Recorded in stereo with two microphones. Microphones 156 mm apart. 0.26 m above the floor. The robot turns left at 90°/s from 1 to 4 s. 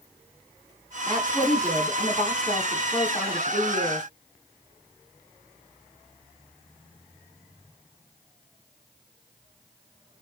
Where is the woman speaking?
140° right, 1.8 m; by 4.1 s 45° right, 1.8 m.